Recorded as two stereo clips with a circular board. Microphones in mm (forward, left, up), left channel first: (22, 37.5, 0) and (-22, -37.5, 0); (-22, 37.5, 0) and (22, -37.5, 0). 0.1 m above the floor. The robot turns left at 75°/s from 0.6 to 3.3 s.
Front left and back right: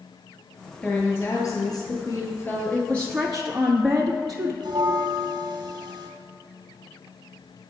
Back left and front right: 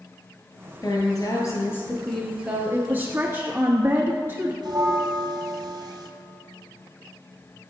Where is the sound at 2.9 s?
Straight ahead, 1.3 m; by 4.5 s 30° right, 1.3 m.